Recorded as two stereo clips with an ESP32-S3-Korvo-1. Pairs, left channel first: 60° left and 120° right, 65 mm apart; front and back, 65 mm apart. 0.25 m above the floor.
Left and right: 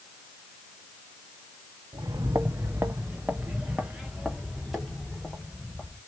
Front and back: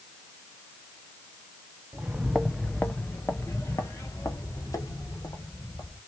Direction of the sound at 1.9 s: 115° right.